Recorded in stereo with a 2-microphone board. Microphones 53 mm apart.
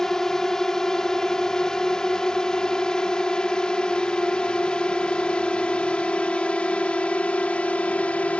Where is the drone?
10° left (ahead or behind); by 8.4 s 25° left (ahead or behind).